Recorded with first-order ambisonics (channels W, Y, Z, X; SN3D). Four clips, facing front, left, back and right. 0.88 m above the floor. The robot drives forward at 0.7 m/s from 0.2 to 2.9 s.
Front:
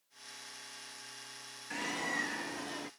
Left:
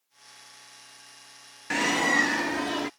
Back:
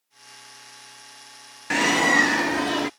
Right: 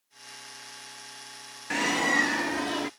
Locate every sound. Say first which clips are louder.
1.7 s a bird: left 1 dB, back 18 dB; 175° left